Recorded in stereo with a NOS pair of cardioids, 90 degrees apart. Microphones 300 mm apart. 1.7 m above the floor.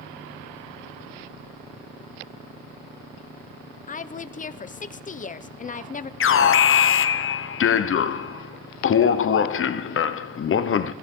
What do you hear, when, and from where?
3.9 s a woman speaking: 25° left, 0.8 m
6.2 s an alarm: 45° left, 0.9 m